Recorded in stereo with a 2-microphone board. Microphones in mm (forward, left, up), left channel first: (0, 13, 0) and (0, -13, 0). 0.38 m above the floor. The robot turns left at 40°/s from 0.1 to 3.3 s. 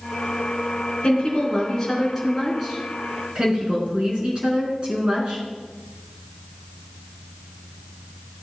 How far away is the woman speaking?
About 4 m.